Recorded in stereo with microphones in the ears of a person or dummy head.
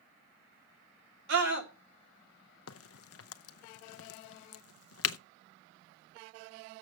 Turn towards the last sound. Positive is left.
turn(degrees=75)  # may be behind; listen again after turning